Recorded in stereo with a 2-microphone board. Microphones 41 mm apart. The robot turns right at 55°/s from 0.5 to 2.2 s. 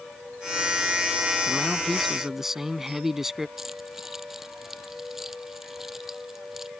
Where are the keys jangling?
5° right (ahead or behind).